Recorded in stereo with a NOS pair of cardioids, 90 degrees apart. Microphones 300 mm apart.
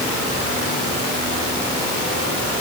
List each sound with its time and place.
Only background noise.